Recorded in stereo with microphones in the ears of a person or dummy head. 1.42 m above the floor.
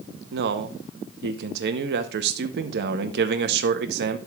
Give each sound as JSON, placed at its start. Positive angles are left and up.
{"t": 0.3, "sound": "a man speaking", "side_deg": -70, "distance_m": 0.7}